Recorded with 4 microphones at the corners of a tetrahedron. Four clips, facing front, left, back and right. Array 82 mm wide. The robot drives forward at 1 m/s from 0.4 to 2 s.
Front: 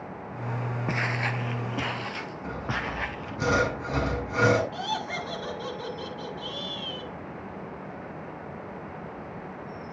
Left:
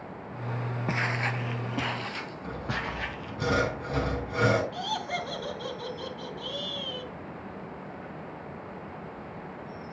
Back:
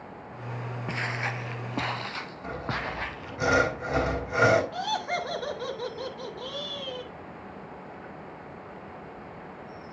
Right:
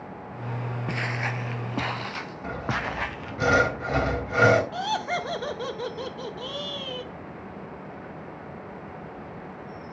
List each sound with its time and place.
0.9 s footsteps: 45° left, 0.8 m; by 3.4 s 100° right, 2 m
2.4 s sawing: 120° right, 3.5 m
4.7 s laughter: 110° right, 1.9 m